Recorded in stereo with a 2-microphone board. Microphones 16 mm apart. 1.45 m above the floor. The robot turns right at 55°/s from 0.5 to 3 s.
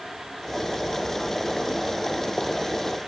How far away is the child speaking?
No child speaking in this recording.